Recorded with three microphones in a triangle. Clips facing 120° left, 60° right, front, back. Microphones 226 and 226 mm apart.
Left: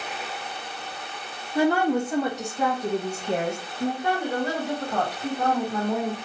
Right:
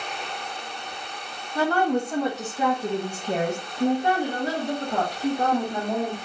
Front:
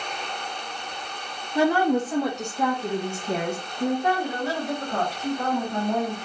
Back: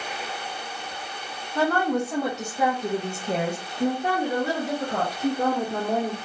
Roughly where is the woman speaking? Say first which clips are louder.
Left 2 dB, front 3 dB; ahead left.